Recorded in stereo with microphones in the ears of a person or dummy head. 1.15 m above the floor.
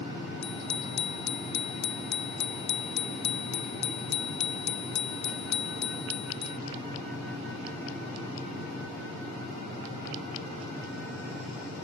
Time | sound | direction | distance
0.4 | a bicycle bell | 60° left (ahead or behind) | ?